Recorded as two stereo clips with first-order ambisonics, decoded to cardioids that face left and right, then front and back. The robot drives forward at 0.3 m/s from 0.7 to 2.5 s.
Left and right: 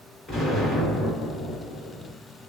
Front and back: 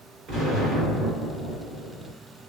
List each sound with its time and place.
0.3 s an explosion: 160° left, 1.9 m; by 2.1 s 165° left, 2 m